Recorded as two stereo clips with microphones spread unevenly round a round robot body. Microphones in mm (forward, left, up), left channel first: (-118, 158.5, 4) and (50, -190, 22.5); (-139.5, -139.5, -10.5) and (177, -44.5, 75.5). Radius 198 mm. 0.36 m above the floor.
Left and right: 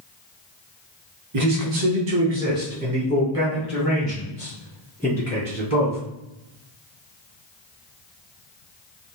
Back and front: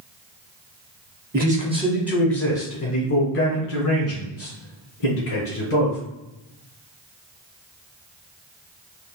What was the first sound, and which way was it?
A man speaking, 55° right.